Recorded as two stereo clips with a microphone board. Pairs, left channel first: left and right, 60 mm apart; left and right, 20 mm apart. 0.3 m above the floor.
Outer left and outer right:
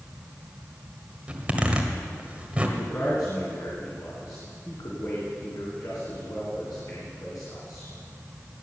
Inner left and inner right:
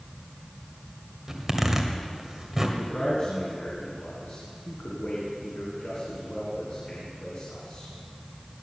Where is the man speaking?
70° left (ahead or behind), 3.5 m.